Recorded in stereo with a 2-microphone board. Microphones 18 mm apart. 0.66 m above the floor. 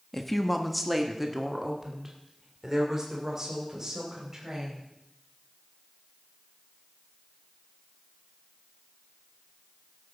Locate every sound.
0.1 s a woman speaking: 15° left (ahead or behind), 1.2 m; by 4.9 s 35° right (ahead or behind), 4.5 m